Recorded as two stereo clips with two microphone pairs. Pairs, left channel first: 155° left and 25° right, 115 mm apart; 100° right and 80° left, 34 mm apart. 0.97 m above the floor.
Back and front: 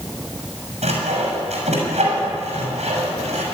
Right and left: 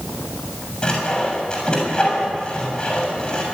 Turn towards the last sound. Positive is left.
turn(degrees=-40)